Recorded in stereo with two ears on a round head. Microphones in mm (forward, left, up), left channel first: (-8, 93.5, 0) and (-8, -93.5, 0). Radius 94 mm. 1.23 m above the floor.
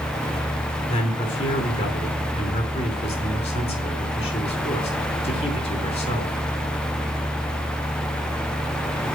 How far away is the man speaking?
About 5 m.